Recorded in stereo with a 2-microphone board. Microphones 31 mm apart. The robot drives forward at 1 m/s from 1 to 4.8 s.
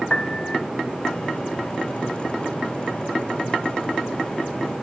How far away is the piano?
About 0.6 m.